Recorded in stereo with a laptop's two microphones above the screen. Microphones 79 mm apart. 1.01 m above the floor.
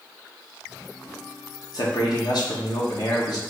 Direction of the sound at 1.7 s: 60° left (ahead or behind).